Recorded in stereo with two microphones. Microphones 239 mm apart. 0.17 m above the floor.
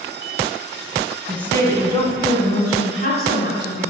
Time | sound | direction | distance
1.3 | a woman speaking | 5° left (ahead or behind) | 1.3 m